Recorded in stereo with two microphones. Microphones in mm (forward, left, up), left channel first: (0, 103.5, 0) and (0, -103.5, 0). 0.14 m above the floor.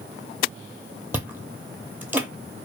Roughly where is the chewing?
Centre.